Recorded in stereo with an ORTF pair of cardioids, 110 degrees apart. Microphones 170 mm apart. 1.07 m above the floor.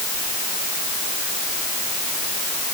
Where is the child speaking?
I don't hear a child speaking.